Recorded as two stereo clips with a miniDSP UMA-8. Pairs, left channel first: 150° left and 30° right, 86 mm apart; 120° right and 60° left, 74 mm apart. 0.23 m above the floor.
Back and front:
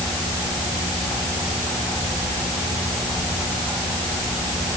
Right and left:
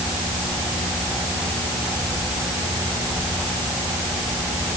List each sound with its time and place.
Only background noise.